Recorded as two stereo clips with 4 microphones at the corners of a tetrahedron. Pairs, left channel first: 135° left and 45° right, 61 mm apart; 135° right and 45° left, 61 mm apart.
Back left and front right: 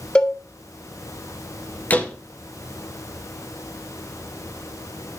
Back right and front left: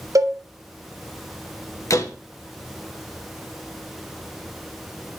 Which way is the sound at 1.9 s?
165° right.